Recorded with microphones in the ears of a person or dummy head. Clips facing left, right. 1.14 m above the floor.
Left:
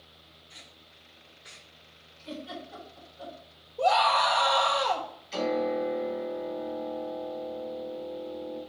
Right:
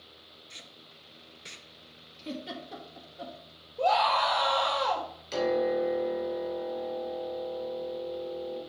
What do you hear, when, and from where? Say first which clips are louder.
0.5 s tape being pulled: right 3 dB; 35° right (ahead or behind), 0.7 m
2.2 s a giggle: right 1 dB; 65° right (ahead or behind), 1.6 m
3.8 s a scream: left 1 dB; centre (ahead or behind), 1.3 m
5.3 s a piano: right 1 dB; 75° right (ahead or behind), 2 m